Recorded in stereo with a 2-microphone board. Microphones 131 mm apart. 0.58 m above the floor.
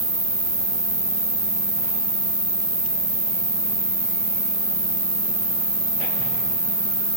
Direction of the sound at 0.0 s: 30° right (ahead or behind).